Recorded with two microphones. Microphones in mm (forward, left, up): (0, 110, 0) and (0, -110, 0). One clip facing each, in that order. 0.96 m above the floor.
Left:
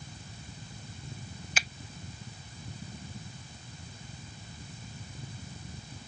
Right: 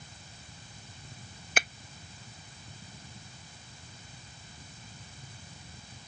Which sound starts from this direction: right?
A finger snap, at 1.6 s.